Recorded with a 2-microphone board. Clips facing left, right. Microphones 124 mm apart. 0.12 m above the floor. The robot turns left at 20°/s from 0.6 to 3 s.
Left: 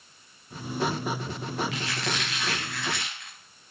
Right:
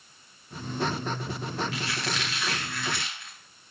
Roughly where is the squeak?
Left.